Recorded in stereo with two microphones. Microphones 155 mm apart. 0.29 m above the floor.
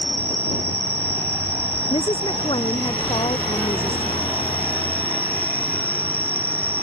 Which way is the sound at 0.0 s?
35° left (ahead or behind).